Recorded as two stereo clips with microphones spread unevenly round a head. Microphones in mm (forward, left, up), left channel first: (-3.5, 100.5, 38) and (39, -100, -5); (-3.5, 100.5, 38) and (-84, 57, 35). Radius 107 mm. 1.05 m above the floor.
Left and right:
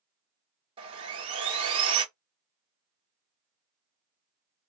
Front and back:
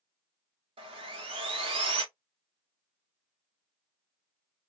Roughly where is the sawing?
Behind right.